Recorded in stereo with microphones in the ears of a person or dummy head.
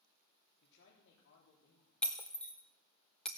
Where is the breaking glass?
Centre (ahead or behind), 1.2 m.